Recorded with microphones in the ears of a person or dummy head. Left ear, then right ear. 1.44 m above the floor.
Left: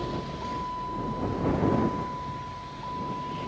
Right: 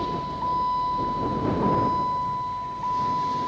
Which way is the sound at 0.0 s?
30° right (ahead or behind).